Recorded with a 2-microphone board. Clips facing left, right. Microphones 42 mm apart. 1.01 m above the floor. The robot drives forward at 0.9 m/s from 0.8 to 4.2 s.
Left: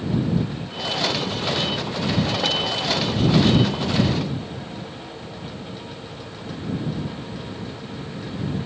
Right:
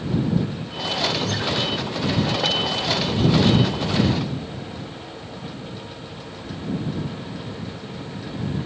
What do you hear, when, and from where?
1.2 s a guitar: 75° right (ahead or behind)